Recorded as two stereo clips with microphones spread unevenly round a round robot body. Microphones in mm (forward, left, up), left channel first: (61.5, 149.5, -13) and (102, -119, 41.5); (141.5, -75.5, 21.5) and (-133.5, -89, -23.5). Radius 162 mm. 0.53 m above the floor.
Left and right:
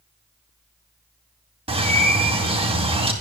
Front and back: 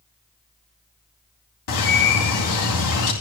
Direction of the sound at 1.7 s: 10° right.